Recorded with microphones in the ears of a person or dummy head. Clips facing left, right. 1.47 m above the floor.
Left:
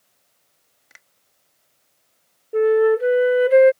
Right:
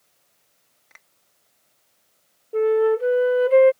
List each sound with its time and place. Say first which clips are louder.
0.9 s a finger snap: left 1 dB; 10° left (ahead or behind)
2.5 s a flute: left 3 dB; 20° left (ahead or behind)